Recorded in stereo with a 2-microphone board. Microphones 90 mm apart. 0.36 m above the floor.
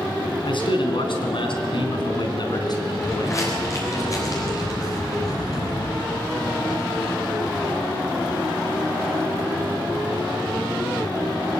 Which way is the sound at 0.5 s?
65° left (ahead or behind).